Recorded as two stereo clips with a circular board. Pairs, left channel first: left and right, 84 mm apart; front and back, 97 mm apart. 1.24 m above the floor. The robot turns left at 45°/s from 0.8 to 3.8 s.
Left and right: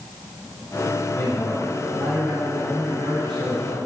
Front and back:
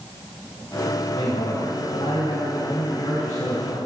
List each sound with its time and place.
1.1 s a man speaking: 35° left, 5 m; by 3.9 s 85° right, 5 m